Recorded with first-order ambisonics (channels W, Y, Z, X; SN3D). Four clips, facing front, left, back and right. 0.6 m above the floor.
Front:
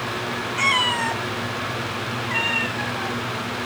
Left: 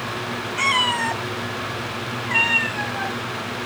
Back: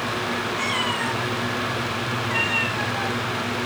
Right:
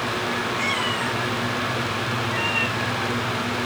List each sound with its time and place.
0.6 s a cat meowing: 45° left, 1.6 m; by 3.1 s 90° left, 2.5 m